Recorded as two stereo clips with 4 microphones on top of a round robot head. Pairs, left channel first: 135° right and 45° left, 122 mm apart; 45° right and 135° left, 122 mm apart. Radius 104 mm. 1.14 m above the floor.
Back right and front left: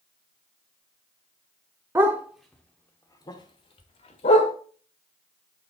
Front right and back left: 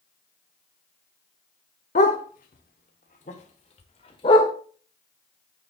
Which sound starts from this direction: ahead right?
A dog barking, at 1.9 s.